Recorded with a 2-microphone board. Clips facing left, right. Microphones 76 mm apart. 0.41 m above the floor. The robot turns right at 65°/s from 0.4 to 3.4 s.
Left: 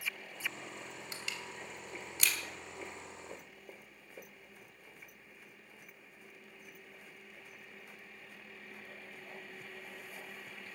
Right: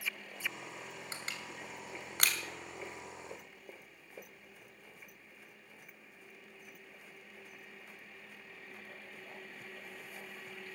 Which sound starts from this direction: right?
Crushing, at 1.1 s.